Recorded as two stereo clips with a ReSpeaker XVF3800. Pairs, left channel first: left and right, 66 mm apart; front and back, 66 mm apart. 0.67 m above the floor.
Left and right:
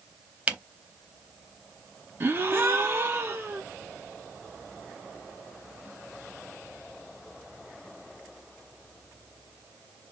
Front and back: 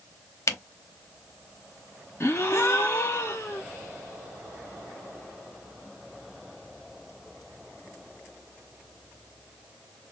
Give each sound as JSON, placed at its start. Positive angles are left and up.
{"t": 0.5, "sound": "a camera shutter", "azimuth_deg": -30, "distance_m": 0.7}
{"t": 2.2, "sound": "a gasp", "azimuth_deg": -45, "distance_m": 0.9}